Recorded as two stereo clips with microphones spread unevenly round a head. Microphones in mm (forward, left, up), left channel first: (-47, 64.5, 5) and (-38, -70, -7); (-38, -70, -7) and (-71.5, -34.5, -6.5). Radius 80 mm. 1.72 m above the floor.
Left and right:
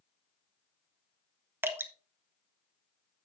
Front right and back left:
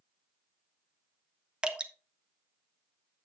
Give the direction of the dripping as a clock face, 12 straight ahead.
5 o'clock.